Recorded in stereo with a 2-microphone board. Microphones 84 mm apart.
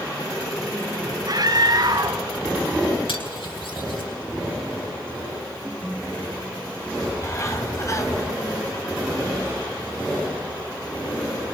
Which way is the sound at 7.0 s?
40° left (ahead or behind).